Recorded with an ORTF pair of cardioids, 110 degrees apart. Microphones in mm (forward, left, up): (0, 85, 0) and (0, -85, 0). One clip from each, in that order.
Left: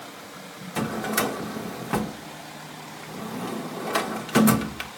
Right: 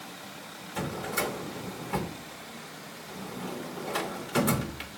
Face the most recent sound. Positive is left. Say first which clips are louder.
# left 5 dB
turn(degrees=45)